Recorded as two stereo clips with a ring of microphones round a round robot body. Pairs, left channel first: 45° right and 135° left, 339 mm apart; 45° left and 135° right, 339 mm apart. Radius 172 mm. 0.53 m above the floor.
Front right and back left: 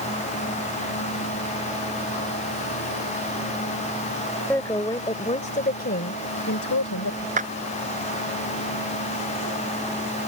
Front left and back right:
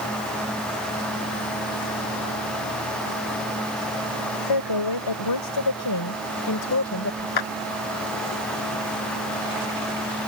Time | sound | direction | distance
4.5 | a woman speaking | 40° left | ?
7.4 | a clap | 65° left | ?